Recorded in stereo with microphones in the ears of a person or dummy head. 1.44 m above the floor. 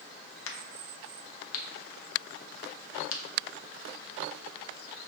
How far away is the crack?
About 0.8 m.